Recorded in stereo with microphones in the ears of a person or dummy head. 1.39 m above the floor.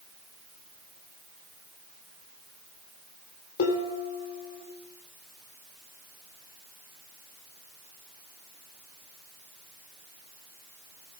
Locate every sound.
3.6 s dishes clattering: 55° left (ahead or behind), 3 m